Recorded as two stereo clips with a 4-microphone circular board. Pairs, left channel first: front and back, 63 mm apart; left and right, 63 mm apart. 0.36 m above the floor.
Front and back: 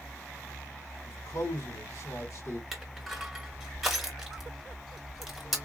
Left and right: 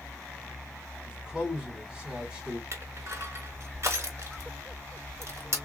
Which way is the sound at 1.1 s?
20° right.